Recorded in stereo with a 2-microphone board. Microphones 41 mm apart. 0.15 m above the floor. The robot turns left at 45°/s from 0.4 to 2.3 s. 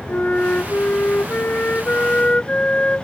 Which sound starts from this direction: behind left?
A flute, at 0.1 s.